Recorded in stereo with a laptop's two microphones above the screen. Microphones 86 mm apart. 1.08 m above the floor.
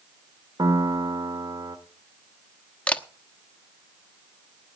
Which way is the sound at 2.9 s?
15° left (ahead or behind).